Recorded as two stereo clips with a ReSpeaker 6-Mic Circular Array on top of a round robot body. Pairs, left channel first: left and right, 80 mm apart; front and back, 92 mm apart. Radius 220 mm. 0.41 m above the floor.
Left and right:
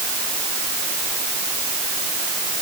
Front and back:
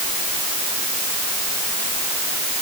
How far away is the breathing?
I don't hear breathing.